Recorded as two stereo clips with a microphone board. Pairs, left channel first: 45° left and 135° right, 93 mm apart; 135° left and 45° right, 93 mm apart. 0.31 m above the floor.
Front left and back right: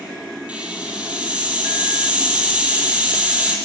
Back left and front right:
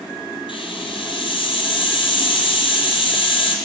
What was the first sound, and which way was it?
A hiss, 150° left.